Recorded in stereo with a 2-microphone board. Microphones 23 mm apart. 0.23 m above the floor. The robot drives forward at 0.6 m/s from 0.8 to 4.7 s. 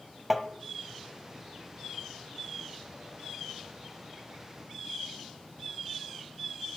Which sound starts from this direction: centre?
Tapping, at 0.3 s.